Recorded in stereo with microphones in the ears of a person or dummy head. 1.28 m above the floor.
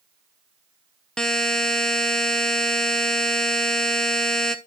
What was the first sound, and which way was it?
A buzzer, centre (ahead or behind).